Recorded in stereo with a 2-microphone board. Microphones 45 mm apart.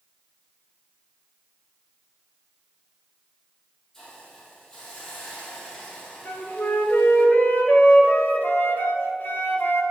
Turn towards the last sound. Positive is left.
turn(degrees=50)  # may be behind; listen again after turning